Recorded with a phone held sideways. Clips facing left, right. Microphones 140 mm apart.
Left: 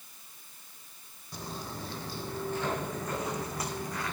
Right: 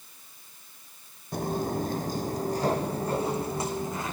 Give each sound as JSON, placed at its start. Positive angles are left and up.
{"t": 1.3, "sound": "footsteps", "side_deg": -60, "distance_m": 2.5}